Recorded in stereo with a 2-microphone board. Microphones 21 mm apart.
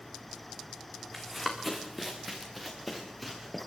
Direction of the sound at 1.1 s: 5° left (ahead or behind).